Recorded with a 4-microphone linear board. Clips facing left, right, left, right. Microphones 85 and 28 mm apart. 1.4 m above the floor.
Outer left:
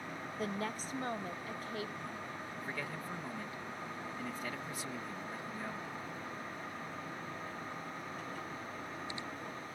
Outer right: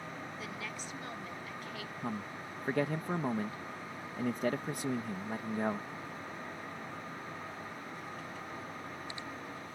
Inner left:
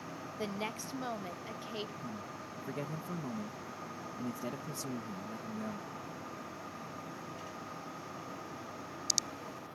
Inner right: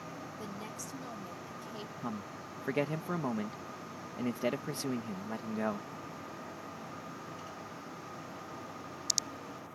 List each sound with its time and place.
0.4 s a woman speaking: 40° left (ahead or behind); by 1.9 s 35° left (ahead or behind)
2.0 s a man speaking: 55° right (ahead or behind)